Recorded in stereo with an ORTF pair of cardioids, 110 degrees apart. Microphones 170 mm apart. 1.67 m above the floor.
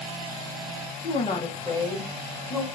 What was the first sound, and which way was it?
A woman speaking, 40° left.